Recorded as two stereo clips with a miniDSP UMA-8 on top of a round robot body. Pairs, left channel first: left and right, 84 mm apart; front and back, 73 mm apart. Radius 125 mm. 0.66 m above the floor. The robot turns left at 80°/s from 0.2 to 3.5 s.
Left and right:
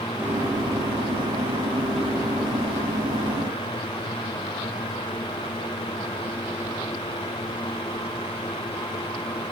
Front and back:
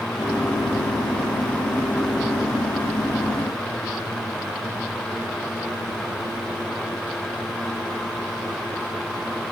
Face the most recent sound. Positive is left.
No sound to turn to.